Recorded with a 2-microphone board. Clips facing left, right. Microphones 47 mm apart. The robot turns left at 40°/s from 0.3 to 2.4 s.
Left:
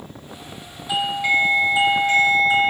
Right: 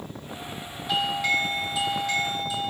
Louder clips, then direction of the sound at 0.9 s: Left 4 dB; 170° left.